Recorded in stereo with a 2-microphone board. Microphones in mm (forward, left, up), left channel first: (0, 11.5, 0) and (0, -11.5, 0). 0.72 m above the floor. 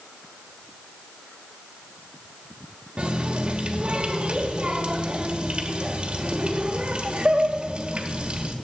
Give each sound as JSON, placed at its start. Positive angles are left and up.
{"t": 3.0, "sound": "a running tap", "side_deg": -45, "distance_m": 1.4}